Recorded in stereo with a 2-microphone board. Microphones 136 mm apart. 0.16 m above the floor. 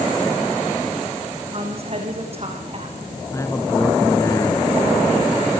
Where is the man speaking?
20° left (ahead or behind), 2 m.